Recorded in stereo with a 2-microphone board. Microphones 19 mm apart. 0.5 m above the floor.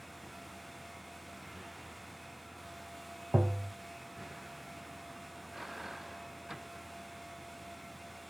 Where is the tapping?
45° right (ahead or behind).